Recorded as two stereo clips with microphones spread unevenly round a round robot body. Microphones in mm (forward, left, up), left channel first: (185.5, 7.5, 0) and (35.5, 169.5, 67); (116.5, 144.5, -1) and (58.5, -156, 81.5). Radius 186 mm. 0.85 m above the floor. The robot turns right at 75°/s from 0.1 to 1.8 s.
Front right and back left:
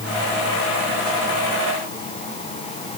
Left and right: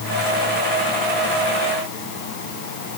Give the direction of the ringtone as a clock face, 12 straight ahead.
I don't hear a ringtone.